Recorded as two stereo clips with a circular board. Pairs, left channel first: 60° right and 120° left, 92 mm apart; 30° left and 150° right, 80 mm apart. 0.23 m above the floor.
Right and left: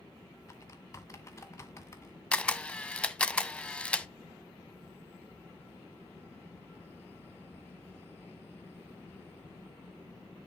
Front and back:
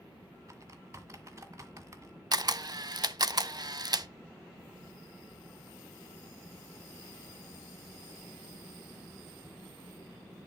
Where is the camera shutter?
135° right, 0.6 m.